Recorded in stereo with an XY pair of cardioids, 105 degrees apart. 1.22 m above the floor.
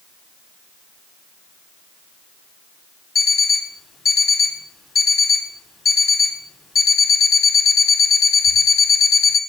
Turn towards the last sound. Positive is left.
turn(degrees=45)